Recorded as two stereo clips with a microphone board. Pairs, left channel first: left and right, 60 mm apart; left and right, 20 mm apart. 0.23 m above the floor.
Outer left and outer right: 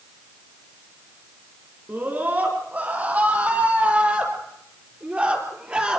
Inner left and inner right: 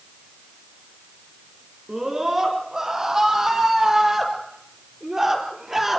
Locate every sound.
1.9 s a scream: 30° right (ahead or behind), 10 m; by 6.0 s 20° right (ahead or behind), 5.5 m